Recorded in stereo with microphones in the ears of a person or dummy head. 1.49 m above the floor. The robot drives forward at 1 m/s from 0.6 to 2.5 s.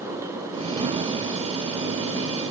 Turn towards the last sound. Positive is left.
No sound to turn to.